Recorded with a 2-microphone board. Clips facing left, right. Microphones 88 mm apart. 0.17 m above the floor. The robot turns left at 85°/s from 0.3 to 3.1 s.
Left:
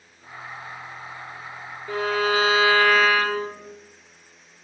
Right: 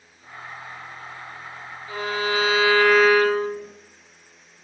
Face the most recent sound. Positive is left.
turn(degrees=-10)